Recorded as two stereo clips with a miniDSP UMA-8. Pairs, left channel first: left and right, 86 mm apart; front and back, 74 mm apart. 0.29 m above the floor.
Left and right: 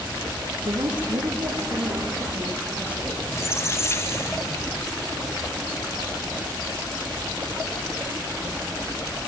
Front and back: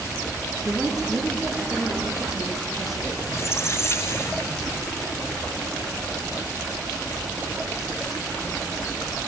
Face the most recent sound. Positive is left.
turn(degrees=40)